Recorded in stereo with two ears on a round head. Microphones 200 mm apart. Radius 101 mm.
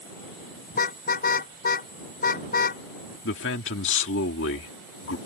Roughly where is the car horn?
Left.